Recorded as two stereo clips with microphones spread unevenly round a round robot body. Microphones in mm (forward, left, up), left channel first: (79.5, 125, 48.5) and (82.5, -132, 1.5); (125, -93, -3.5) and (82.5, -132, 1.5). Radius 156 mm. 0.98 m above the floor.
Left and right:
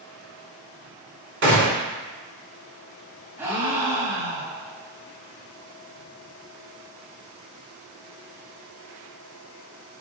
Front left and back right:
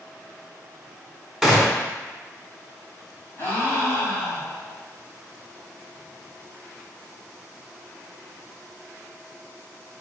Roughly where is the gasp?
Ahead.